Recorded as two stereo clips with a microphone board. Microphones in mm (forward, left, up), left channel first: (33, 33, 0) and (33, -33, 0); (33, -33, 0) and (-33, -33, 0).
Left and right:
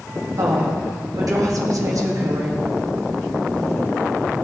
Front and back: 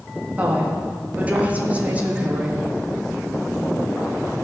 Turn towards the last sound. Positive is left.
turn(degrees=-115)